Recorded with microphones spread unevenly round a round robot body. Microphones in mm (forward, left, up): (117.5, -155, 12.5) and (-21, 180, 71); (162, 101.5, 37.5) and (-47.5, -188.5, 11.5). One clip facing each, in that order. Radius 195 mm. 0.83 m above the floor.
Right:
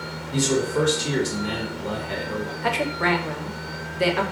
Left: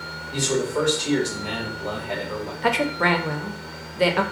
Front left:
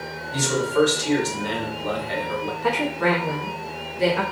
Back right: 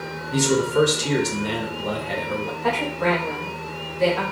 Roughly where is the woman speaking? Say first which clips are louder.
Left 4 dB, front left 1 dB; behind left.